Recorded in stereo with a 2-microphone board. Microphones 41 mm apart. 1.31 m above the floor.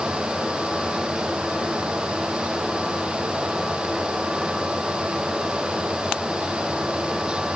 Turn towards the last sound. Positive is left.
No sound to turn to.